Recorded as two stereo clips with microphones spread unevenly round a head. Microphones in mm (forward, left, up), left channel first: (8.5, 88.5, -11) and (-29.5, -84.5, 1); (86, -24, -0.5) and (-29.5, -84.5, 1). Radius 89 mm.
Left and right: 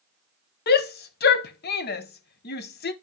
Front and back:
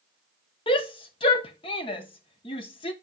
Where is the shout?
80° left, 0.8 m.